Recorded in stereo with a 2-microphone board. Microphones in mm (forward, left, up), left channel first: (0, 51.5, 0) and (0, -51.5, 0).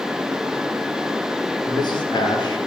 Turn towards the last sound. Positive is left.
turn(degrees=45)  # may be behind; listen again after turning